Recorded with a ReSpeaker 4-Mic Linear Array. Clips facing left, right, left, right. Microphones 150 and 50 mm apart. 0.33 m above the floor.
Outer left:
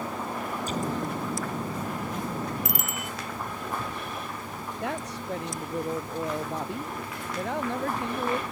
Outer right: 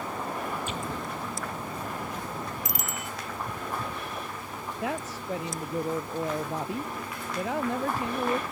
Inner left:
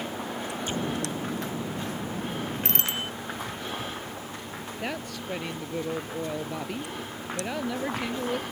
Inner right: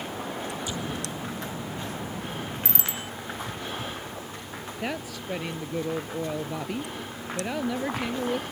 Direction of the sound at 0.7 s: 40° left (ahead or behind).